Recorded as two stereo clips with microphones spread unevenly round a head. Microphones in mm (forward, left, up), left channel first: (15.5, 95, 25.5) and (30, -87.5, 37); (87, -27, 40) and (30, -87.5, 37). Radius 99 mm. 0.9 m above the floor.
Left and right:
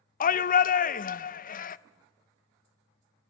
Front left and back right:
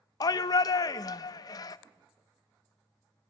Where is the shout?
80° left, 0.6 m.